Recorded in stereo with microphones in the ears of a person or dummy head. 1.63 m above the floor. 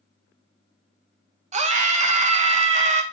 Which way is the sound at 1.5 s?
45° right (ahead or behind).